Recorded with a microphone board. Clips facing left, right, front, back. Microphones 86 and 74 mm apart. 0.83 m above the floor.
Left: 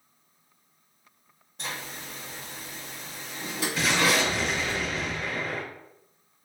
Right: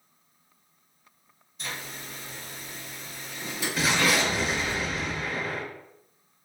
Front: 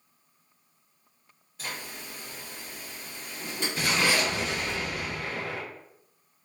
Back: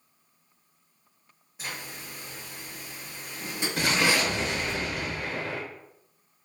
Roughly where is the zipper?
Left.